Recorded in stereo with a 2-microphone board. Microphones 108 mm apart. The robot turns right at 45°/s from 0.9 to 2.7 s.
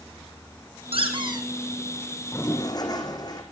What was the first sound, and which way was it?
A squeak, 60° right (ahead or behind).